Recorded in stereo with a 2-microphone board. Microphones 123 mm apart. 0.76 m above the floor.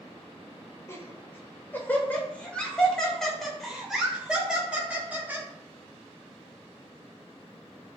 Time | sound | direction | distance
0.9 | laughter | 25° left (ahead or behind) | 3.5 m